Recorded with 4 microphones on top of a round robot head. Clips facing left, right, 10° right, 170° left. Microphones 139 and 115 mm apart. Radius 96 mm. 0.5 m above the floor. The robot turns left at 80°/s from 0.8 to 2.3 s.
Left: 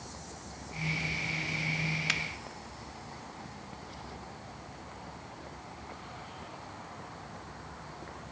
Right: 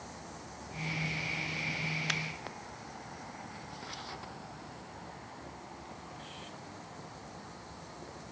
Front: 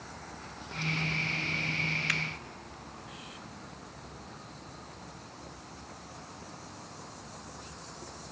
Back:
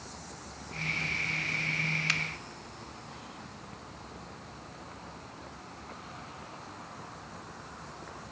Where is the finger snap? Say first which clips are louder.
Even, even; 175° left, 1.0 m; by 2.2 s 165° left, 1.0 m.